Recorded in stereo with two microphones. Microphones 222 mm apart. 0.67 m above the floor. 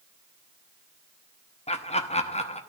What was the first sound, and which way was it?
Laughter, 25° left (ahead or behind).